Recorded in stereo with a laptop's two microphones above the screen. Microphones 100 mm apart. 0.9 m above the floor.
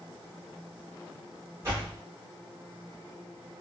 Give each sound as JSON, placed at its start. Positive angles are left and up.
{"t": 1.6, "sound": "a door slam", "side_deg": -25, "distance_m": 1.7}